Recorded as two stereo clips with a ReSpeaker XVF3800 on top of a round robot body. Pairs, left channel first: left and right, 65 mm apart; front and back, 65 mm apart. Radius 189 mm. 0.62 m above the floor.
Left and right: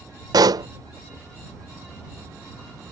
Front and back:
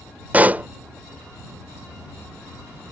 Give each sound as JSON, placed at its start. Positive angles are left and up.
{"t": 0.3, "sound": "a pop", "azimuth_deg": -110}